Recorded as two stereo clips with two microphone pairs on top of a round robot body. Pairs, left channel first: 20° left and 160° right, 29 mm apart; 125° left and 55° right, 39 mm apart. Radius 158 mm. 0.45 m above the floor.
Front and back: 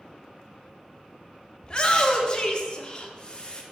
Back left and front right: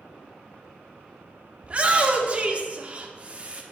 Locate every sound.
1.6 s a shout: 30° right, 1.2 m